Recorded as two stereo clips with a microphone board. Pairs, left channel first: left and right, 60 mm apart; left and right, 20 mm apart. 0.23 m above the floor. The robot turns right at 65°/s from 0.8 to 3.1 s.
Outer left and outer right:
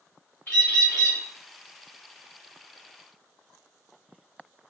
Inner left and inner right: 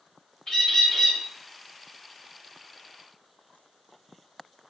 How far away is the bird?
About 1.6 m.